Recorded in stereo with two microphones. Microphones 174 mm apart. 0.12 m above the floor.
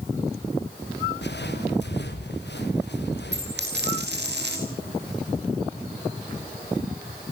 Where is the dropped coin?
85° right, 5 m.